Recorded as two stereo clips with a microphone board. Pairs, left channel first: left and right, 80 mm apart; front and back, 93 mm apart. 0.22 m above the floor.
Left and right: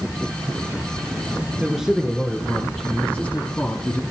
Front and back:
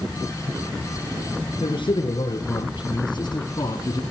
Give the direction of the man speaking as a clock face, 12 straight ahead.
12 o'clock.